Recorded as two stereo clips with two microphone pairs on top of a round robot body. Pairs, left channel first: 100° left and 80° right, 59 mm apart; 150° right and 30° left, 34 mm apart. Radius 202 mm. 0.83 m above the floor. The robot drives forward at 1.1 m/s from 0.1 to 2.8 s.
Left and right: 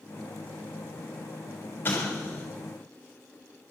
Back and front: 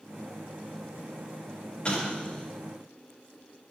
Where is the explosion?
155° left, 2.5 m; by 2.4 s 160° left, 3 m.